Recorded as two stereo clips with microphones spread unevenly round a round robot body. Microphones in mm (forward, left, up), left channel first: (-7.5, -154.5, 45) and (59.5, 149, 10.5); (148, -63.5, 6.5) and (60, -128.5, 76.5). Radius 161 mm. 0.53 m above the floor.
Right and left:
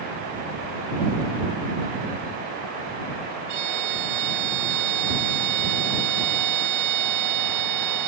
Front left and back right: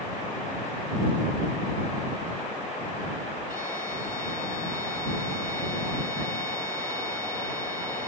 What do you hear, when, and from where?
3.5 s a violin: 115° left